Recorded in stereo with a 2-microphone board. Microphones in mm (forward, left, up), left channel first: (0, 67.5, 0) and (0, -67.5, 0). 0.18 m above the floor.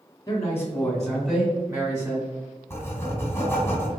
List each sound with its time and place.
0.3 s a man speaking: 25° left (ahead or behind), 1.2 m; by 2.3 s 25° right (ahead or behind), 1.3 m
2.7 s writing: 20° left (ahead or behind), 1.3 m